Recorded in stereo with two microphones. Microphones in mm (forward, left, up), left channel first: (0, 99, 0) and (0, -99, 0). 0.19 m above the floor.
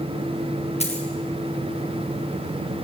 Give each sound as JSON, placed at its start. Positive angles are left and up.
{"t": 0.8, "sound": "a dropped coin", "side_deg": 30, "distance_m": 6.0}